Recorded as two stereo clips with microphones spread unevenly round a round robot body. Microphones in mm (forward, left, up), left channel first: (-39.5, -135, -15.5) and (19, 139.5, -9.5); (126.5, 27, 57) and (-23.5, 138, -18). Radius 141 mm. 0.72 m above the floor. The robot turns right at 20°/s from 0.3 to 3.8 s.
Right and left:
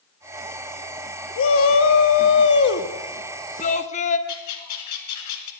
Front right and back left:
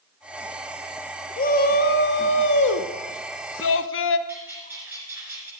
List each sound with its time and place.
1.4 s a shout: 95° right, 0.9 m; by 4.2 s 45° right, 0.9 m
4.3 s a bird: 125° right, 1.6 m